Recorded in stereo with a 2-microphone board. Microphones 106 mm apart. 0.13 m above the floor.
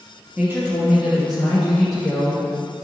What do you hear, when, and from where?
0.4 s a woman speaking: 25° right (ahead or behind), 3 m; by 2.5 s 15° left (ahead or behind), 4 m